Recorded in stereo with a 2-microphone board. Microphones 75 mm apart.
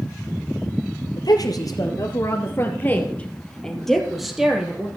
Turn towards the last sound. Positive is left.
turn(degrees=-10)  # may be behind; listen again after turning